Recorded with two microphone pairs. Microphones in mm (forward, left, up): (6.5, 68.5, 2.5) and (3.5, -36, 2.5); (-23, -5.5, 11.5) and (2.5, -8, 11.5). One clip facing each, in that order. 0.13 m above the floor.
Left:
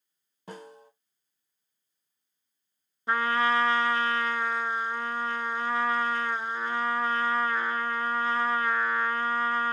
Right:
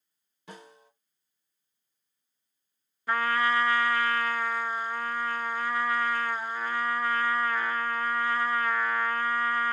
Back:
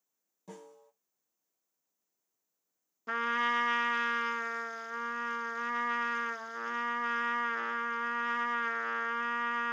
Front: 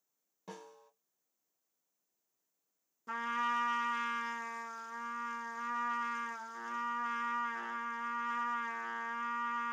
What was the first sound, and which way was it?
A snare drum, 45° left.